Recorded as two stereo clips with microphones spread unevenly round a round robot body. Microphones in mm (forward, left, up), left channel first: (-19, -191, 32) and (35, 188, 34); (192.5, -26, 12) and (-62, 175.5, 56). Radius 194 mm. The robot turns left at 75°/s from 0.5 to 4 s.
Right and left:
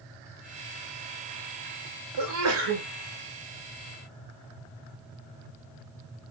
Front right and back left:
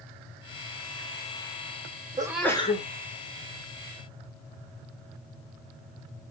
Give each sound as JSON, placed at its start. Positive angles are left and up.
{"t": 2.2, "sound": "a sneeze", "azimuth_deg": 65, "distance_m": 1.6}